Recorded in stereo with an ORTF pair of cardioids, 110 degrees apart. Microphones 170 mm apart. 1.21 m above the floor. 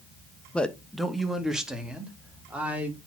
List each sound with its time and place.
0.5 s a man speaking: 5° left, 1.1 m; by 3.1 s 10° right, 3 m